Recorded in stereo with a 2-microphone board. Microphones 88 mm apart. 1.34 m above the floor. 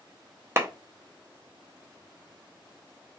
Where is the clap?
35° right (ahead or behind), 0.6 m.